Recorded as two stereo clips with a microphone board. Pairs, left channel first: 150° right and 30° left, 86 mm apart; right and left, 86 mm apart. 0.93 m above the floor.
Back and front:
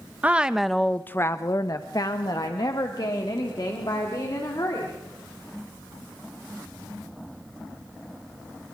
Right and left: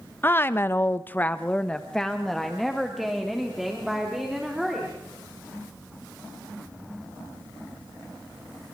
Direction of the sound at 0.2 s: 35° right.